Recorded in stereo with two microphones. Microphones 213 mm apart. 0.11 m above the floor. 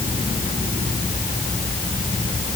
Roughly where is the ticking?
No ticking in this recording.